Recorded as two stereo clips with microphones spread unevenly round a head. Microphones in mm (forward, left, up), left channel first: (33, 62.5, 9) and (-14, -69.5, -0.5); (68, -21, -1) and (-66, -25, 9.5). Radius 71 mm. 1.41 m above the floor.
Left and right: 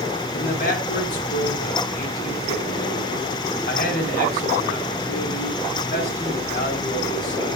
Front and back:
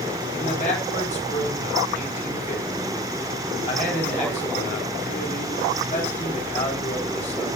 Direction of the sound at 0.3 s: 50° left.